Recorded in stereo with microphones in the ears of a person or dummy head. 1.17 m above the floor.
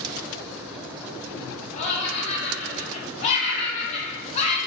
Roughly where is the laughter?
Left.